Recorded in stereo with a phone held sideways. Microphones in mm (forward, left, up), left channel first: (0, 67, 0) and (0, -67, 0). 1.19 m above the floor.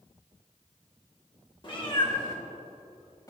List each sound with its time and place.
1.6 s a cat meowing: 35° left (ahead or behind), 1.6 m; by 3.3 s 30° left (ahead or behind), 2.5 m